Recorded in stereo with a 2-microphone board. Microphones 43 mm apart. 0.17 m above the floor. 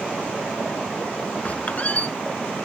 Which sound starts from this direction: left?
A squeak, at 1.4 s.